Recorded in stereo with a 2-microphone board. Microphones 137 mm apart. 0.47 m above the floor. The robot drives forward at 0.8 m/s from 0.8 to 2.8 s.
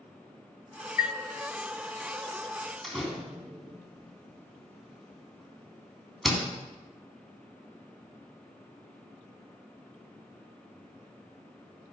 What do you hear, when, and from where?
1.0 s a chime: 65° left (ahead or behind), 0.8 m; by 1.2 s 55° left (ahead or behind), 0.9 m
2.8 s a door slam: centre (ahead or behind), 3 m